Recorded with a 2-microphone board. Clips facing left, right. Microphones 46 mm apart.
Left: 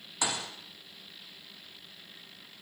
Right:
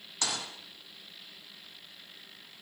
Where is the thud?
15° left (ahead or behind), 6 m.